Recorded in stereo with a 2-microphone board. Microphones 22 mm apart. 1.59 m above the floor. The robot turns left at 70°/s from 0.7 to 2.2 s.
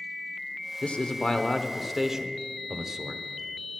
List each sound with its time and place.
0.8 s a man speaking: 75° left, 0.8 m; by 3.2 s 20° right, 0.8 m